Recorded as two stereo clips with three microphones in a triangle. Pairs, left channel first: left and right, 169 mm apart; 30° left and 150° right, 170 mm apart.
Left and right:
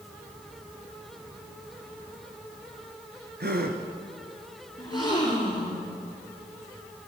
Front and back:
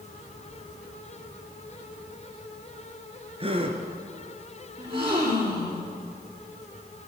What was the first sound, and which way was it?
A gasp, 95° right.